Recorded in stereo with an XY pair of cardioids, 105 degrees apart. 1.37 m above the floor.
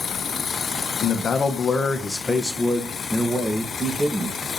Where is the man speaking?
55° left, 1.5 m; by 4.4 s 15° right, 2.5 m.